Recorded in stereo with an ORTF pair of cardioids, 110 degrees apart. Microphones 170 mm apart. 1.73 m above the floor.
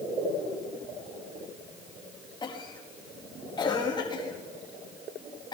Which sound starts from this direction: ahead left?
A cough, at 2.4 s.